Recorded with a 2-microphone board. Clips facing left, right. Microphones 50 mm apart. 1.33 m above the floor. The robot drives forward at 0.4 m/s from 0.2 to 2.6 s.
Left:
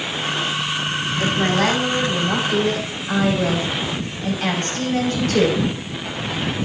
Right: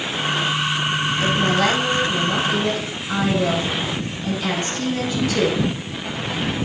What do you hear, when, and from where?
1.2 s a woman speaking: 50° left (ahead or behind), 6.5 m